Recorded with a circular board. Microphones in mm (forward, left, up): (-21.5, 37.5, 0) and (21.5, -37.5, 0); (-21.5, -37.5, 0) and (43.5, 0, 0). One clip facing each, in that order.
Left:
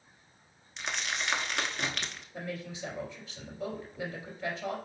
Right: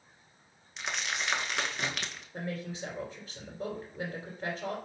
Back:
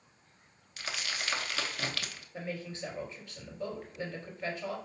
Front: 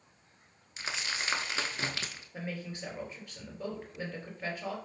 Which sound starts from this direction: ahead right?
A woman speaking, at 2.3 s.